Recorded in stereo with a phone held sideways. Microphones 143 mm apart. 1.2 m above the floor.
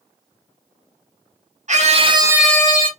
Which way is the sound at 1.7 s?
55° right (ahead or behind).